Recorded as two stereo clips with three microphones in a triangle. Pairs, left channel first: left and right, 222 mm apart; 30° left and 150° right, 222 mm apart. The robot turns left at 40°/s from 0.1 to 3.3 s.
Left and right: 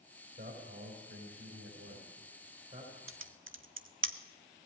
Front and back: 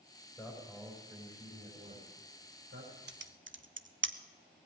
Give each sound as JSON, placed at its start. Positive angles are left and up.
{"t": 0.4, "sound": "a man speaking", "azimuth_deg": -50, "distance_m": 5.5}
{"t": 3.1, "sound": "typing on a keyboard", "azimuth_deg": -110, "distance_m": 0.6}